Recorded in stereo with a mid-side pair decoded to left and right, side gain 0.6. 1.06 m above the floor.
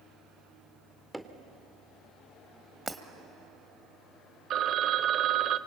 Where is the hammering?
5° right, 2 m.